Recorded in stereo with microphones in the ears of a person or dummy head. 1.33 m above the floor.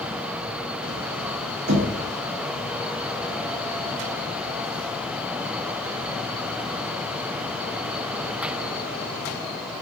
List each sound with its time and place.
1.7 s knocking: 50° right (ahead or behind), 1.6 m